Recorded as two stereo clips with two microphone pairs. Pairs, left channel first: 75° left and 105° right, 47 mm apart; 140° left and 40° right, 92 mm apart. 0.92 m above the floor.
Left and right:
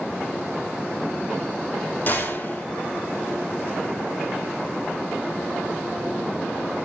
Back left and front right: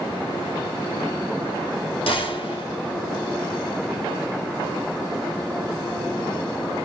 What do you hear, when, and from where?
2.1 s a gunshot: 120° left, 4.5 m